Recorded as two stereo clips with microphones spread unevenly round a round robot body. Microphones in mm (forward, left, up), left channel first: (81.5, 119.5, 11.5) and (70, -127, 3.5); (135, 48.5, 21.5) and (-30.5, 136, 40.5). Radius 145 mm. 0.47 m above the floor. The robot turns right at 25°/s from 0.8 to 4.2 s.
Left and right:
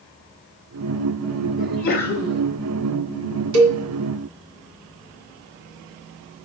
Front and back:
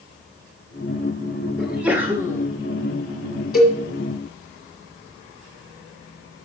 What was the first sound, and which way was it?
A sneeze, 55° left.